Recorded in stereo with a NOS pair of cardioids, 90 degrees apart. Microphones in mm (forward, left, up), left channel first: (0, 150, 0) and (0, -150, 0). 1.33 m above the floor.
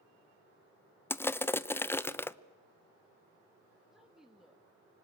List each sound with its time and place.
1.1 s crushing: 5° left, 0.6 m
3.9 s a woman speaking: straight ahead, 2 m